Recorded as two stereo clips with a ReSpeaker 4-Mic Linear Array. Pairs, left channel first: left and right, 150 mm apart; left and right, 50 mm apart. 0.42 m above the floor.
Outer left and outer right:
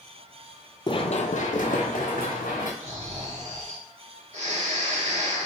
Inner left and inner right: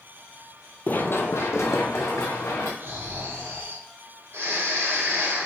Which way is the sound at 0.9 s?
35° left (ahead or behind).